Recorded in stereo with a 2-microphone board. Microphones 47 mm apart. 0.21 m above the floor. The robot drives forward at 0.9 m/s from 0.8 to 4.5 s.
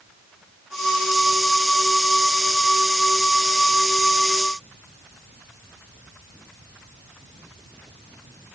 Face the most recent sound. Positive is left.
No sound to turn to.